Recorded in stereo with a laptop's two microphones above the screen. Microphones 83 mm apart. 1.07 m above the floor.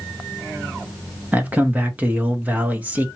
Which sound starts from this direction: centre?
A man speaking, at 1.3 s.